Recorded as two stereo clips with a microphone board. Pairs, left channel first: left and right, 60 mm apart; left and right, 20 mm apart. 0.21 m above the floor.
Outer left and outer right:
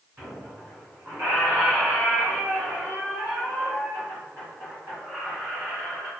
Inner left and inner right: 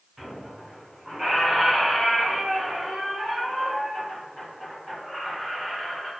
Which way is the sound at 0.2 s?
30° right (ahead or behind).